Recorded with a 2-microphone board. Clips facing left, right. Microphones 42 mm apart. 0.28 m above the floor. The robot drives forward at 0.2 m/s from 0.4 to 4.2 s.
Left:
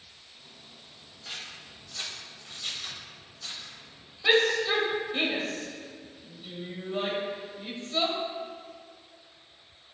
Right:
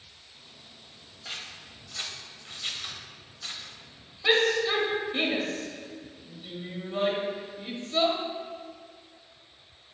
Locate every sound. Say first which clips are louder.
1.2 s scissors: right 1 dB; 20° right (ahead or behind), 0.8 m; by 3.7 s 25° right (ahead or behind), 0.7 m
4.2 s a shout: even; 5° right (ahead or behind), 1.1 m